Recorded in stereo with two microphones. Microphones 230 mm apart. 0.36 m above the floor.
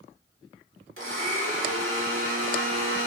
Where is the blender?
65° right (ahead or behind), 0.9 m.